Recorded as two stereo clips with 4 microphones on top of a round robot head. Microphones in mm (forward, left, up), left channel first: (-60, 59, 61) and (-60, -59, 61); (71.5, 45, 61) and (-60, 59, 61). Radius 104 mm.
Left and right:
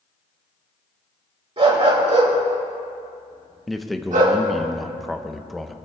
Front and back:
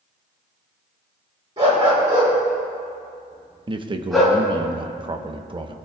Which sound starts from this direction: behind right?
A dog barking, at 1.6 s.